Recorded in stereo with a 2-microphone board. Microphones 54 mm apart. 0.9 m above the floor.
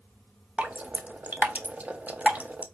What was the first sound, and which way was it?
Dripping, 25° right (ahead or behind).